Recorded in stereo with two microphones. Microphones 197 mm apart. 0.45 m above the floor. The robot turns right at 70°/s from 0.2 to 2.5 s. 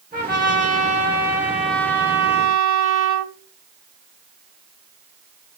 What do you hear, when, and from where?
0.1 s a trumpet: 105° right, 1.7 m; by 3.3 s 60° left, 1.7 m